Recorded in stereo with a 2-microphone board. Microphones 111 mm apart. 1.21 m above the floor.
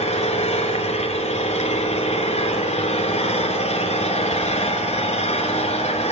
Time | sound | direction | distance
0.0 | an engine running | 80° left | 5.5 m